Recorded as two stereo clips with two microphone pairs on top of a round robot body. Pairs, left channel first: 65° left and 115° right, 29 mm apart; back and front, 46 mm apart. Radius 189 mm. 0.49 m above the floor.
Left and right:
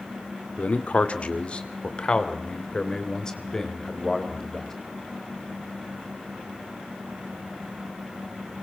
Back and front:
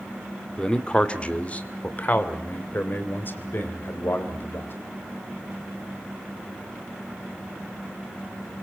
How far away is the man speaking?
About 2 m.